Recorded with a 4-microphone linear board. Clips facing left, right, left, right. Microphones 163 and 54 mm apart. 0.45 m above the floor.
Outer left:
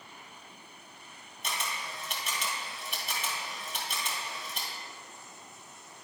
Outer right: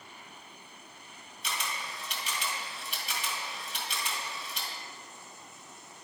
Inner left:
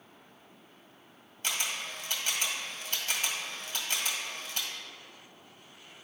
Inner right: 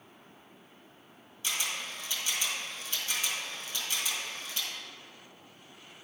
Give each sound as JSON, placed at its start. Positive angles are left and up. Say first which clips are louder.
{"t": 1.4, "sound": "a camera shutter", "louder": "outer left 1 dB, inner left 1 dB", "side_deg": 50, "distance_m": 1.7}